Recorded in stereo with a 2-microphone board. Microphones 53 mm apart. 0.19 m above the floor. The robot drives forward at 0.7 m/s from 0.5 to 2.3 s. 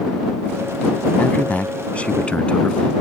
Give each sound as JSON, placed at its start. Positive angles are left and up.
{"t": 1.2, "sound": "a man speaking", "side_deg": 30}